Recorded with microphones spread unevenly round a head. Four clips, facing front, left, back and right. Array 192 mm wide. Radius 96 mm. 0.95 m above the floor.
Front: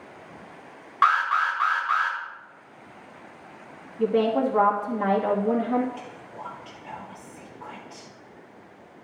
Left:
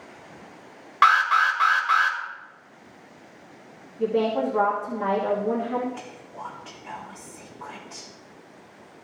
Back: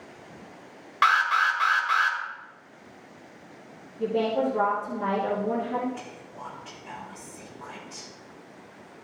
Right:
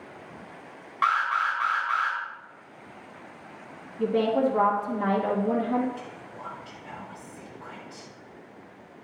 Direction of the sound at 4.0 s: 10° left.